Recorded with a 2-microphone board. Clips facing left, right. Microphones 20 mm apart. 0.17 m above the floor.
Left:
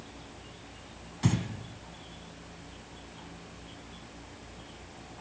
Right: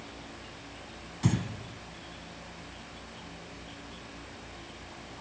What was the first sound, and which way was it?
Breathing, 10° left (ahead or behind).